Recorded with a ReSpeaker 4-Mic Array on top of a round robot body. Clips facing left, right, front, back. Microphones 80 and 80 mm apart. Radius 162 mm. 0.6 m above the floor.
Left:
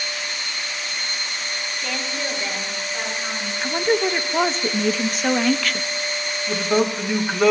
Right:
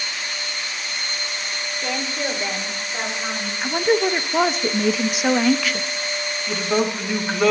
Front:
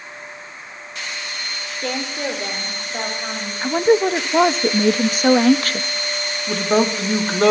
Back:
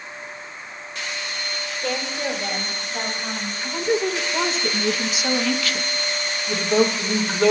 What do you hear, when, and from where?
1.8 s a woman speaking: 25° right, 3 m; by 3.5 s 20° right, 5 m
3.6 s a woman speaking: 10° right, 0.7 m
6.5 s a man speaking: 5° left, 1.9 m